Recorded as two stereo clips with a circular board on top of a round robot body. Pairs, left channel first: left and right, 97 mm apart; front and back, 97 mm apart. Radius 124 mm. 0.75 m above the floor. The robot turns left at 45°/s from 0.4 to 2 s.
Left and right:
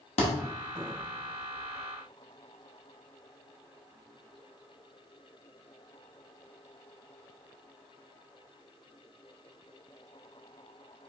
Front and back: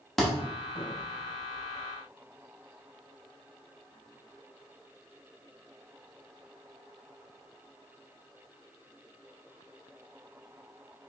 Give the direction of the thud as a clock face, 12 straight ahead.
9 o'clock.